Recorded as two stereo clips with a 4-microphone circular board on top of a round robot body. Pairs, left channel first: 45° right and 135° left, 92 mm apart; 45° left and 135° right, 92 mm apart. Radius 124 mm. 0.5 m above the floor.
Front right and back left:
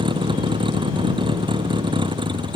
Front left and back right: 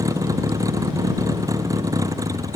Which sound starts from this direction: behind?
A vehicle, at 0.0 s.